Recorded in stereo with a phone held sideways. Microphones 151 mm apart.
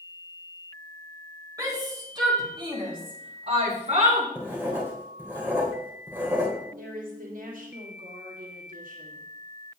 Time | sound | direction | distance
1.6 | a shout | 25° right (ahead or behind) | 4 m
4.3 | writing | 15° right (ahead or behind) | 3 m
6.8 | a woman speaking | 65° right (ahead or behind) | 2.5 m